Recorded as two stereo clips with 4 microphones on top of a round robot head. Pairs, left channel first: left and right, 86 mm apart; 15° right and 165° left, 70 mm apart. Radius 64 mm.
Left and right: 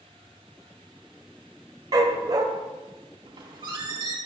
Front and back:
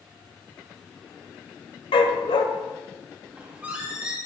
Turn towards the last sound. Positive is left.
turn(degrees=-120)